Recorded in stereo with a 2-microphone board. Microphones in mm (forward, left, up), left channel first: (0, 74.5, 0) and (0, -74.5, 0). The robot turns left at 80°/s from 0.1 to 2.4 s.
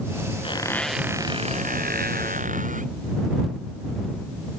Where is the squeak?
40° left; by 2.9 s 120° right.